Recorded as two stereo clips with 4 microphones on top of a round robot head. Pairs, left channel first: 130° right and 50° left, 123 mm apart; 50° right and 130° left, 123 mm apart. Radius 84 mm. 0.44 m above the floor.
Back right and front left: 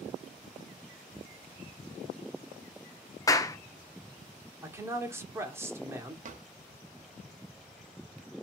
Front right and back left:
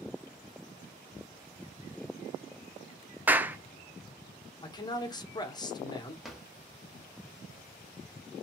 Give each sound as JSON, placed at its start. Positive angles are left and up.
{"t": 3.3, "sound": "a clap", "azimuth_deg": -165, "distance_m": 0.6}
{"t": 4.6, "sound": "a man speaking", "azimuth_deg": -10, "distance_m": 1.0}
{"t": 6.2, "sound": "a drawer", "azimuth_deg": 40, "distance_m": 0.9}